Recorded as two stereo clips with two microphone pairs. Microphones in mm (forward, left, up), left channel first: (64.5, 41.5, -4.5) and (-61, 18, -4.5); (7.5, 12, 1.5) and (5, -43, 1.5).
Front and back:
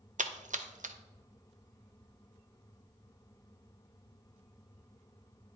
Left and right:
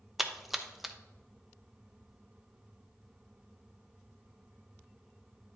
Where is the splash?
175° right, 0.6 m.